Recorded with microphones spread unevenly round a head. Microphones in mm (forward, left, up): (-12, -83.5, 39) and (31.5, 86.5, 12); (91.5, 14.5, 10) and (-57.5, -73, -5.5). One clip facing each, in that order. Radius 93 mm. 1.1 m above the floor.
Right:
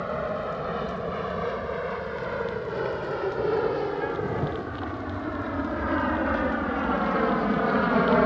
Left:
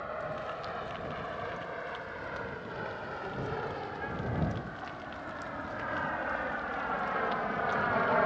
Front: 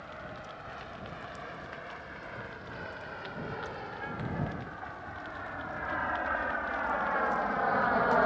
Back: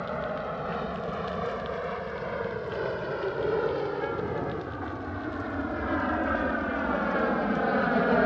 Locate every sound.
0.0 s an aircraft: 135° right; by 8.3 s 100° right